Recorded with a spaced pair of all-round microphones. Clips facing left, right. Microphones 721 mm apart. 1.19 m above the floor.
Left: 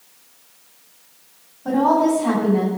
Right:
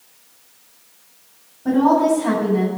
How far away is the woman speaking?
About 9 m.